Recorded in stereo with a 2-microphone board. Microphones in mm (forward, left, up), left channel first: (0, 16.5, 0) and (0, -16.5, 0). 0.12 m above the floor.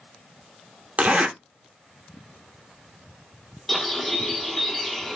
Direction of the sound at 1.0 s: 45° right (ahead or behind).